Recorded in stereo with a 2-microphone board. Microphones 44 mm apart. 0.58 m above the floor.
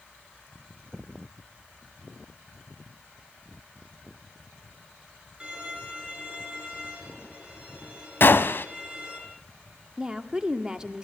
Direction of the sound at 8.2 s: 55° left (ahead or behind).